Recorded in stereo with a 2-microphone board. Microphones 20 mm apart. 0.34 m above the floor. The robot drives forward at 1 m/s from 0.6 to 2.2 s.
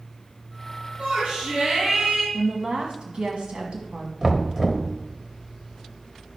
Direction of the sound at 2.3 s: 60° right (ahead or behind).